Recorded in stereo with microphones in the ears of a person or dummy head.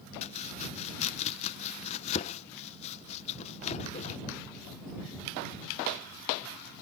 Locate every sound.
0.2 s chopping: 45° left (ahead or behind)